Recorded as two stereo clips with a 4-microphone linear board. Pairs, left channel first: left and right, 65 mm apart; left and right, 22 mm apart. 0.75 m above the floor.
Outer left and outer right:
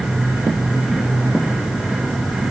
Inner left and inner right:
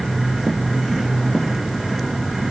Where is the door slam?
No door slam in this recording.